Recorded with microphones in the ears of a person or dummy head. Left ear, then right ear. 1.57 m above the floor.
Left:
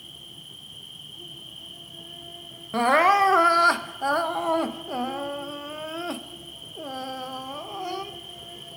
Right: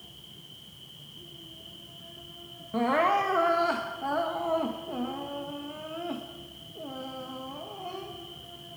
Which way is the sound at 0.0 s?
80° left.